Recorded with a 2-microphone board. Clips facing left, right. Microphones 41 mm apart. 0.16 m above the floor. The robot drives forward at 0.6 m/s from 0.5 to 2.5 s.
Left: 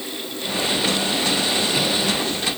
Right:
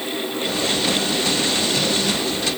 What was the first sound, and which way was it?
Only background noise.